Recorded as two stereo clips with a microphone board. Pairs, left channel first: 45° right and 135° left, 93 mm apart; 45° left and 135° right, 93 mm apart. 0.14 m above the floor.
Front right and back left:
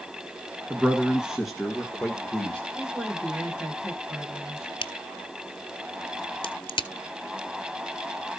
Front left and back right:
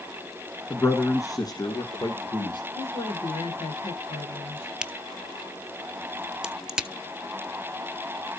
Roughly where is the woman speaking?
Ahead left.